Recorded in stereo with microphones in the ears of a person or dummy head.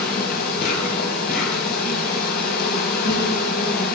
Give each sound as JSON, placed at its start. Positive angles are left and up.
{"t": 0.0, "sound": "an insect", "side_deg": 50, "distance_m": 3.5}